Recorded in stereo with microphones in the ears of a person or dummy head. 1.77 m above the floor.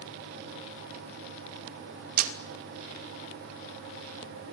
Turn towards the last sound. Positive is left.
turn(degrees=-55)  # may be behind; listen again after turning